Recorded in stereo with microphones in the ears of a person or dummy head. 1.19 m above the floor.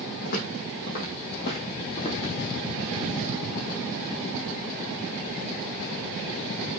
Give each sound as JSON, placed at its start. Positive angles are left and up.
{"t": 0.2, "sound": "footsteps", "side_deg": 60, "distance_m": 3.0}